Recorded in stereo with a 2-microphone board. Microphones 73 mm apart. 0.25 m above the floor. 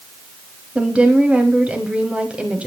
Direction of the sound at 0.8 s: 15° right (ahead or behind).